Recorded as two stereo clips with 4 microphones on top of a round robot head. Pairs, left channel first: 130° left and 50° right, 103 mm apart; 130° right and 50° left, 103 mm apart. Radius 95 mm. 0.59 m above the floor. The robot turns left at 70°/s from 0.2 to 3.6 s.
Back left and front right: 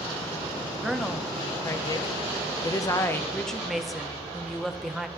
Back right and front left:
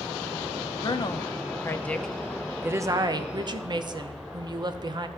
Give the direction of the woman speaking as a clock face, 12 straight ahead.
4 o'clock.